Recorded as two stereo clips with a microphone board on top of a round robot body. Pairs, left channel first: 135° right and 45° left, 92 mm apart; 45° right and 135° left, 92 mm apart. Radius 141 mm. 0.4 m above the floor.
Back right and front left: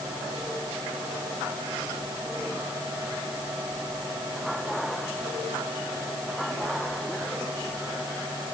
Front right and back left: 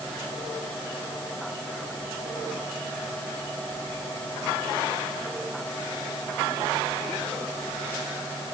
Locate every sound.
Only background noise.